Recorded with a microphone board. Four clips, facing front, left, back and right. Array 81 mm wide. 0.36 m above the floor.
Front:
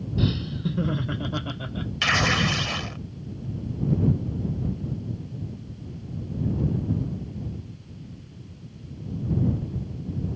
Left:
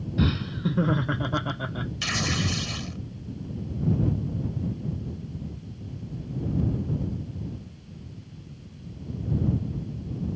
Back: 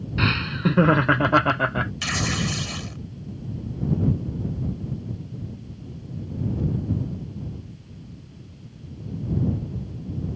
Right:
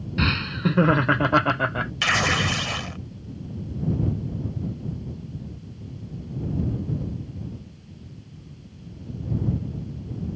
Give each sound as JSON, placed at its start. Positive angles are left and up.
{"t": 0.2, "sound": "laughter", "azimuth_deg": -145}
{"t": 2.0, "sound": "tearing paper", "azimuth_deg": -60}